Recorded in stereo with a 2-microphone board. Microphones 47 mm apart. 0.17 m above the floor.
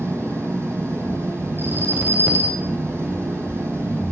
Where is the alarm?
55° right (ahead or behind), 4 m.